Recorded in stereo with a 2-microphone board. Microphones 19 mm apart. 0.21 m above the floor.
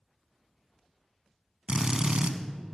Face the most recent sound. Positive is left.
turn(degrees=-50)  # may be behind; listen again after turning